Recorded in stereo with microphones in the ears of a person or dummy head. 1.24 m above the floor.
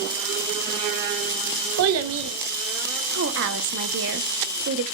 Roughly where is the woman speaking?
Right.